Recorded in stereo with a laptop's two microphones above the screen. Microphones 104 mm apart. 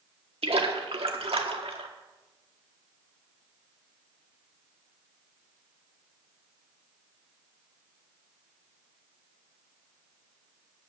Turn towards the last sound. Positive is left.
turn(degrees=-70)  # may be behind; listen again after turning